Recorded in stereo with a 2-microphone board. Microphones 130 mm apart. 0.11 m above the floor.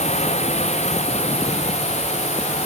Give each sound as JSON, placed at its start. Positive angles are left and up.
{"t": 0.0, "sound": "a drone", "side_deg": 60}